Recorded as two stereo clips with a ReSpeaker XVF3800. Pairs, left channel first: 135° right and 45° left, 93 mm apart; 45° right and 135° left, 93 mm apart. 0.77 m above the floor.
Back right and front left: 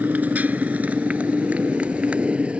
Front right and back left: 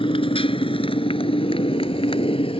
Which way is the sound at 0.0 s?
30° right.